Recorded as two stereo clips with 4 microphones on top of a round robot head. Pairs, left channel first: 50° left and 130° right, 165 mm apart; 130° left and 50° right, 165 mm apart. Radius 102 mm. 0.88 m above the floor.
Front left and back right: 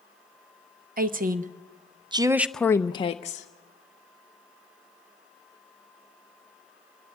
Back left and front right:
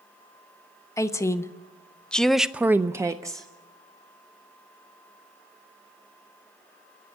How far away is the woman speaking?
About 1.1 m.